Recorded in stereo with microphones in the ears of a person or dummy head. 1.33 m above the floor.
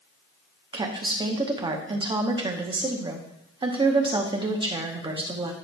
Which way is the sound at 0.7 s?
25° right (ahead or behind).